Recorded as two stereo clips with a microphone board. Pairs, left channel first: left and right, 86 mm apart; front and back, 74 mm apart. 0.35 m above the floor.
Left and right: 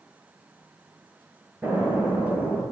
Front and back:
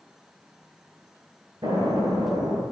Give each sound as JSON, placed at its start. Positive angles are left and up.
{"t": 1.6, "sound": "an explosion", "azimuth_deg": -160, "distance_m": 6.5}